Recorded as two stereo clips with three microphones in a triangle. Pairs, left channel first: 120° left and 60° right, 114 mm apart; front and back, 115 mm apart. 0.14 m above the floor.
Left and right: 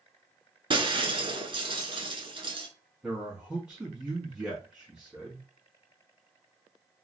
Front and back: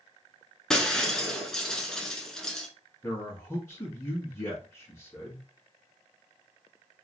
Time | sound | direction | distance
0.7 | breaking glass | 85° right | 0.7 m
3.0 | a man speaking | 10° left | 1.0 m